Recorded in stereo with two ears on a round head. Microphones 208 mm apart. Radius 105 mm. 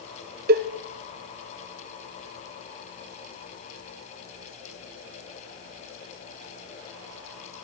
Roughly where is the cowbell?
Right.